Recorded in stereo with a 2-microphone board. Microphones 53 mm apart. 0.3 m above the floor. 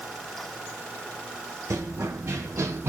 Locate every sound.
1.7 s running footsteps: 70° right (ahead or behind), 1.0 m; by 2.9 s 55° right (ahead or behind), 0.7 m